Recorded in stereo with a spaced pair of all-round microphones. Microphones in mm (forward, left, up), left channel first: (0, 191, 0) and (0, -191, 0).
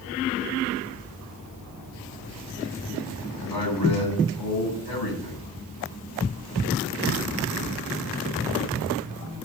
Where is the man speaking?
80° left, 10 m.